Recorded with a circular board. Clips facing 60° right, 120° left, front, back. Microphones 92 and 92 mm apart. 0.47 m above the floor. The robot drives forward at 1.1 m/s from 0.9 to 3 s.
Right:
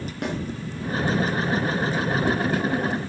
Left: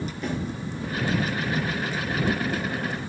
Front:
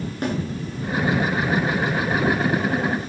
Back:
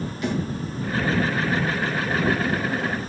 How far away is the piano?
I don't hear a piano.